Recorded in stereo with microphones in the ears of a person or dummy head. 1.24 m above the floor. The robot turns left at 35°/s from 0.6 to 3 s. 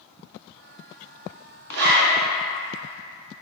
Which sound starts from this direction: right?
A zipper, at 1.7 s.